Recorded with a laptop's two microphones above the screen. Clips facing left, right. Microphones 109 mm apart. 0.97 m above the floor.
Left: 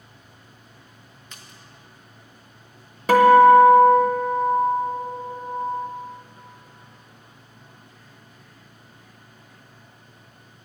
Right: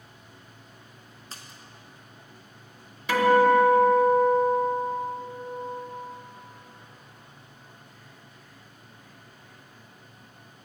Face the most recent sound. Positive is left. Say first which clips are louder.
# left 8 dB
turn(degrees=45)  # may be behind; listen again after turning